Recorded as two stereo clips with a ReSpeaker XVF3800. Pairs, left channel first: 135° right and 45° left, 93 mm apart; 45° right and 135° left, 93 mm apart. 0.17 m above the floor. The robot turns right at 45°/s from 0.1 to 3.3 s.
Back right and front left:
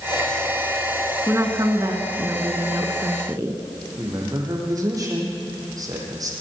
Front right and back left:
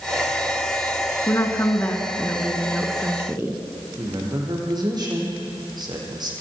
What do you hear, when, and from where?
1.3 s a woman speaking: 5° right, 2 m; by 3.6 s 85° left, 2 m
4.0 s a man speaking: 95° left, 6.5 m